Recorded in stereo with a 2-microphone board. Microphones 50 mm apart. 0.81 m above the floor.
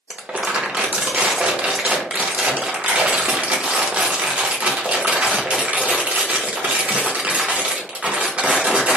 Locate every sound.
0.1 s crumpling: 25° right (ahead or behind), 0.7 m